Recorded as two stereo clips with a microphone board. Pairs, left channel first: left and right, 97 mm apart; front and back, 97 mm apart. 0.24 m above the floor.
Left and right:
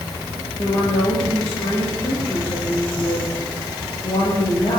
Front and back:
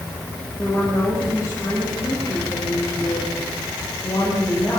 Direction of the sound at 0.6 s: 60° left.